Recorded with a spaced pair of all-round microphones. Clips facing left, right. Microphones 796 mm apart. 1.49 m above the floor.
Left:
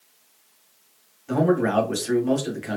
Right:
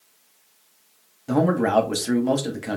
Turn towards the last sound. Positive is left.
turn(degrees=-65)  # may be behind; listen again after turning